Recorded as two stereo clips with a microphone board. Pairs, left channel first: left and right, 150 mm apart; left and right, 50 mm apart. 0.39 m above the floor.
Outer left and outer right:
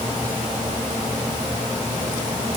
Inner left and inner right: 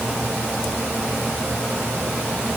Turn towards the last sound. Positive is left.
No sound to turn to.